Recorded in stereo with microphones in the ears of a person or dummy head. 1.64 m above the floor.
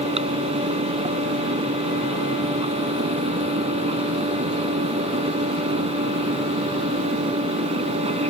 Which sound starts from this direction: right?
A fan, at 0.0 s.